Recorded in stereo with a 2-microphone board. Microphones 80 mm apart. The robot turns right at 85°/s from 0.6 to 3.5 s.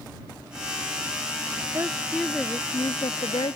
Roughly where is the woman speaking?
Ahead right.